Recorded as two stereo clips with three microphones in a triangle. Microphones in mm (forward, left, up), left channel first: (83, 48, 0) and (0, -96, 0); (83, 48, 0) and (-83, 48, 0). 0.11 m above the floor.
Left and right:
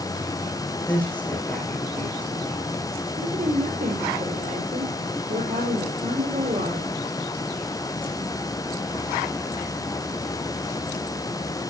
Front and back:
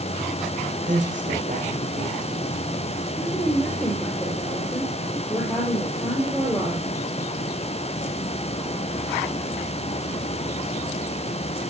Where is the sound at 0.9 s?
140° left, 7 m.